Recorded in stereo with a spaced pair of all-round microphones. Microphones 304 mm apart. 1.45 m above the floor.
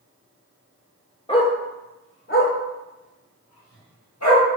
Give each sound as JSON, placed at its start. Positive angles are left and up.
{"t": 1.3, "sound": "a dog barking", "side_deg": 15, "distance_m": 1.5}